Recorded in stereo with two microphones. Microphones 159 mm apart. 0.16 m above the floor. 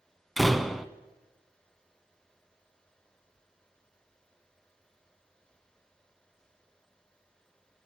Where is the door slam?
Centre (ahead or behind), 0.7 m.